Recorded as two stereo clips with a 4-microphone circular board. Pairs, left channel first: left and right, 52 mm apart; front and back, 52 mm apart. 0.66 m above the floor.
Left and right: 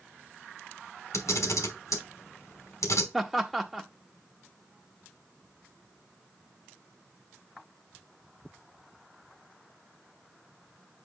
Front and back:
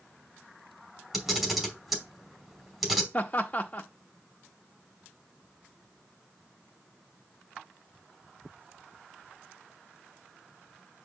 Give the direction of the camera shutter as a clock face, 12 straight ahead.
9 o'clock.